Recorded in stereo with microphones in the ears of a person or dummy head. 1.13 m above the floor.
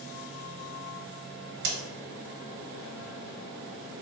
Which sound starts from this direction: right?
A crack, at 1.6 s.